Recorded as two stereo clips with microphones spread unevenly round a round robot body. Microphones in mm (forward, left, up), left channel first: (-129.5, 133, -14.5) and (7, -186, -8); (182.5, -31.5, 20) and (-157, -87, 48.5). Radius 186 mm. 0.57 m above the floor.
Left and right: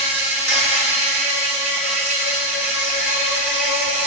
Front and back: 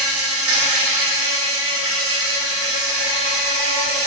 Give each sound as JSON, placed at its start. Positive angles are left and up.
{"t": 0.0, "sound": "an insect", "azimuth_deg": -130, "distance_m": 1.7}